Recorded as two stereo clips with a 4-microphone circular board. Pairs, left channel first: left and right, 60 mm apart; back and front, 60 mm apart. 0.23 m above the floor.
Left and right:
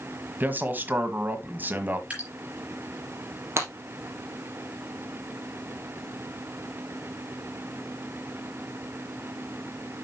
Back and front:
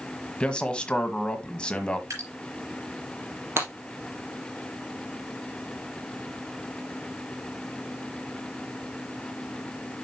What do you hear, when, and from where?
0.4 s a man speaking: 120° right, 1.4 m
2.1 s dripping: 25° right, 5 m
3.6 s breaking glass: 45° right, 3.5 m